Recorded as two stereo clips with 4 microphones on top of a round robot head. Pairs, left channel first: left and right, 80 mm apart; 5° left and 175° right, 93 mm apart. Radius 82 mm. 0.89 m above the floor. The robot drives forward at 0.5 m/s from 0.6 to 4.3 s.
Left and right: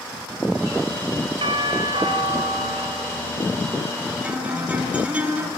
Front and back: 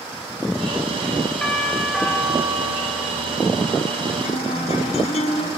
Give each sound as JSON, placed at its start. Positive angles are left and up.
{"t": 1.4, "sound": "a doorbell", "azimuth_deg": -80, "distance_m": 6.5}
{"t": 4.2, "sound": "a guitar", "azimuth_deg": -15, "distance_m": 7.5}